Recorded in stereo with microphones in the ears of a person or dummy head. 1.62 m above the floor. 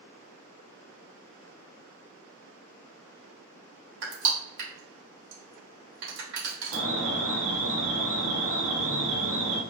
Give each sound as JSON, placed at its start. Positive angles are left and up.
{"t": 4.0, "sound": "crushing", "side_deg": -60, "distance_m": 1.6}
{"t": 6.7, "sound": "an alarm", "side_deg": -85, "distance_m": 1.0}